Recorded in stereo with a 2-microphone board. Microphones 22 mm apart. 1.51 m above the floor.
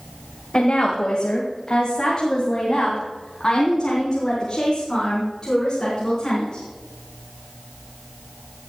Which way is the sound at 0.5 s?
50° left (ahead or behind).